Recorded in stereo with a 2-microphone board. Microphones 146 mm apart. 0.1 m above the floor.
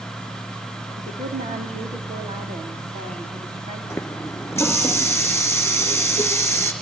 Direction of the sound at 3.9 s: 15° left (ahead or behind).